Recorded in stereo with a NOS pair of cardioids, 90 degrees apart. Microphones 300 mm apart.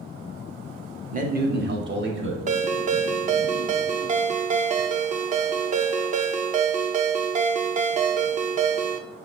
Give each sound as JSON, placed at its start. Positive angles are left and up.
{"t": 1.1, "sound": "a man speaking", "azimuth_deg": -30, "distance_m": 0.9}
{"t": 2.5, "sound": "a ringtone", "azimuth_deg": -25, "distance_m": 0.5}